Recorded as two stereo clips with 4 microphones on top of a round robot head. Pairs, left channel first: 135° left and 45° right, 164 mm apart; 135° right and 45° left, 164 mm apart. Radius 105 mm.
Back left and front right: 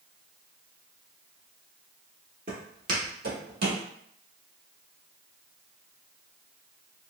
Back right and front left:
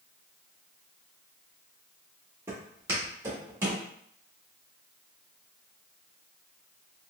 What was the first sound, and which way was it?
Footsteps, 25° right.